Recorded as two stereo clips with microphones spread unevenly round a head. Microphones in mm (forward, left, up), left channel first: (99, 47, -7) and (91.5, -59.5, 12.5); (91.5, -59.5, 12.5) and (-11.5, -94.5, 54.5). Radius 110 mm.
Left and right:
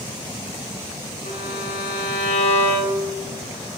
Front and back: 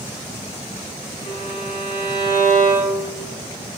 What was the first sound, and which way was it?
A violin, 75° left.